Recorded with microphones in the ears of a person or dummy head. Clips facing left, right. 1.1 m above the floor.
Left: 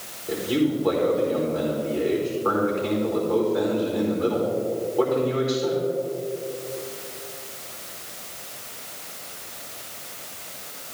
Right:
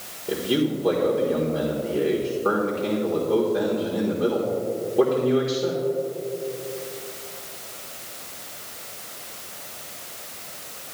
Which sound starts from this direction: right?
A man speaking, at 0.3 s.